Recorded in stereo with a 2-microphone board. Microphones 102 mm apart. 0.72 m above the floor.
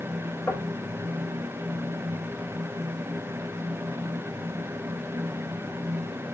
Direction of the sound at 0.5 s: 25° left (ahead or behind).